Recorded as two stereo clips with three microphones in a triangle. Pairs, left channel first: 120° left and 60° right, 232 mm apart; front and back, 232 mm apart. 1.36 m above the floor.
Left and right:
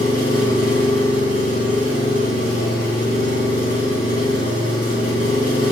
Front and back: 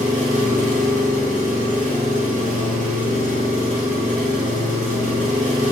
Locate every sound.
0.0 s an engine running: 125° left, 4.5 m